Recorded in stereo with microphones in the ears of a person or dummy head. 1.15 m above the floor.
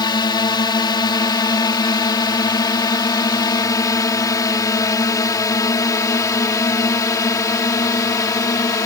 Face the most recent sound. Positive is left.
turn(degrees=20)  # may be behind; listen again after turning